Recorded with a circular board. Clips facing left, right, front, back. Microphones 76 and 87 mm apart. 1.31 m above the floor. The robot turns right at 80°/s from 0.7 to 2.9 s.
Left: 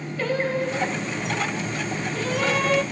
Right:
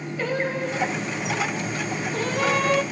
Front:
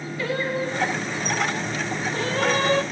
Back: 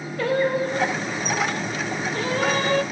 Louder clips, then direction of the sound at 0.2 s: Left 2 dB, back 5 dB; 165° right.